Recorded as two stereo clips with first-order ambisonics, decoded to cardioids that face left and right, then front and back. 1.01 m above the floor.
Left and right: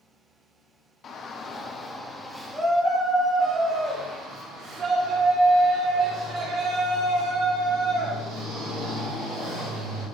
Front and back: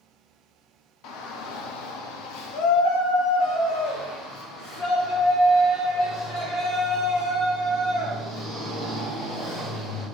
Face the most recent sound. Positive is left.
turn(degrees=-50)